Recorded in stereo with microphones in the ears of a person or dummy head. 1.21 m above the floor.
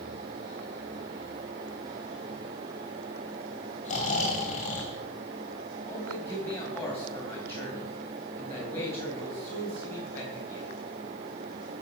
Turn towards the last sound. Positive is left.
turn(degrees=15)  # may be behind; listen again after turning